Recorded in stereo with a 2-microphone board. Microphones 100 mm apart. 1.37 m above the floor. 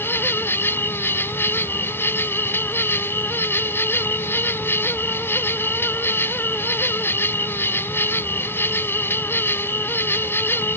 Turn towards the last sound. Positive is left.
turn(degrees=20)  # may be behind; listen again after turning